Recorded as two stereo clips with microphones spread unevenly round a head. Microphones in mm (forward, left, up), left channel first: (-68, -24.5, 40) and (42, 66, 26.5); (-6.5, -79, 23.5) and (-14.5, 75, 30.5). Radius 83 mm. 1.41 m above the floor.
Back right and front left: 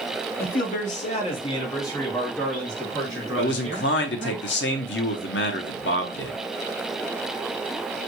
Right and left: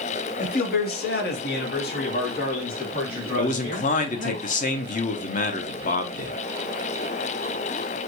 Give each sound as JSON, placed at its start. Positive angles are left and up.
{"t": 0.4, "sound": "a man speaking", "azimuth_deg": -120, "distance_m": 0.9}
{"t": 3.4, "sound": "a man speaking", "azimuth_deg": -130, "distance_m": 0.7}